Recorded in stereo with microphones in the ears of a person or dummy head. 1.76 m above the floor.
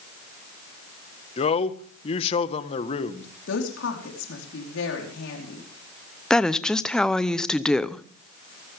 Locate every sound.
1.4 s a man speaking: 35° left (ahead or behind), 1.4 m
3.5 s a woman speaking: 70° left (ahead or behind), 4.5 m
6.3 s a woman speaking: 5° left (ahead or behind), 0.7 m